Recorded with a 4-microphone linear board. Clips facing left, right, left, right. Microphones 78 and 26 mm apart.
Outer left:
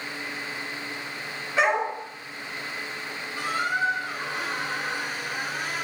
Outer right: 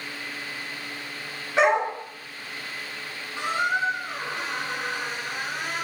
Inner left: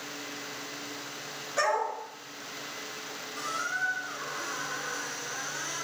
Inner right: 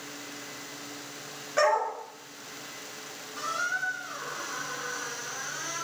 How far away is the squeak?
About 0.6 m.